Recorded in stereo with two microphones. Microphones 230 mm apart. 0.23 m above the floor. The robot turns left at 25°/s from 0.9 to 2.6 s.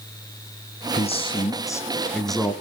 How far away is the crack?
No crack in this recording.